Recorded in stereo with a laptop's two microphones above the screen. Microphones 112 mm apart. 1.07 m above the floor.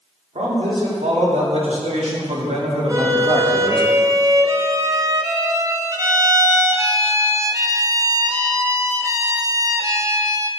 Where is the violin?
30° right (ahead or behind), 0.9 m.